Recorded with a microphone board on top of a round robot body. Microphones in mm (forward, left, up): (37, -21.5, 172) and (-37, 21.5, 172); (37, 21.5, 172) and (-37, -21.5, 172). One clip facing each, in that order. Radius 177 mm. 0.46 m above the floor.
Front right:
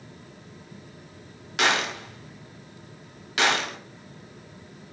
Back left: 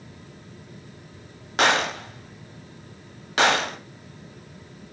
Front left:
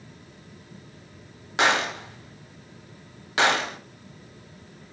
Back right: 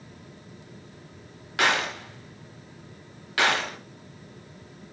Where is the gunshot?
95° left, 1.7 m.